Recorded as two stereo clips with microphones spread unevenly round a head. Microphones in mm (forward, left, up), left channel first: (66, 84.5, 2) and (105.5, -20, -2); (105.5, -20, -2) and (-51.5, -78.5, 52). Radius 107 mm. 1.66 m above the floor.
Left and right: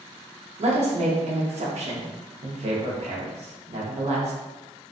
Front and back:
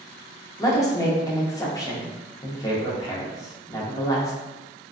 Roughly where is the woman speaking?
Ahead right.